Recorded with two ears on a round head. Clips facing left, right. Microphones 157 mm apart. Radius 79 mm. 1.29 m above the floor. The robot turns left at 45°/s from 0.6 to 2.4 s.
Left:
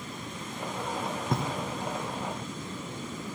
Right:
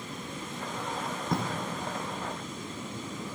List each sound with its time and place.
1.3 s writing: centre (ahead or behind), 2.0 m; by 1.4 s 5° left (ahead or behind), 2.0 m